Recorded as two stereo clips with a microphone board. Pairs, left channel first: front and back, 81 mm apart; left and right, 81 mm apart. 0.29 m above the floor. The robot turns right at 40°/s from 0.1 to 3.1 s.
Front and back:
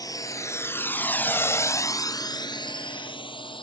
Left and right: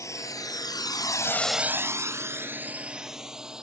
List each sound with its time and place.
0.0 s a drone: 40° left; by 3.6 s 10° right